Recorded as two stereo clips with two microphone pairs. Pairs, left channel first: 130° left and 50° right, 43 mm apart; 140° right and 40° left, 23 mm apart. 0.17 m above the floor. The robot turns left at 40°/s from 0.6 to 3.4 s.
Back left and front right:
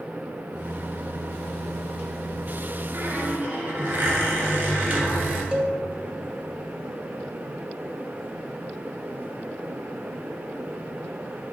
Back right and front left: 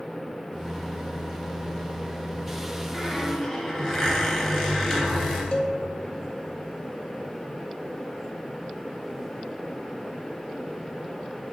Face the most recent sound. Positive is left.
turn(degrees=-110)